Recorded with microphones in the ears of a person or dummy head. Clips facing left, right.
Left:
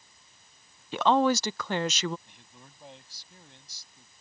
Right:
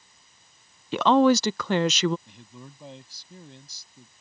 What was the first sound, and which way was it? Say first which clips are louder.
A woman speaking: right 5 dB; 60° right (ahead or behind).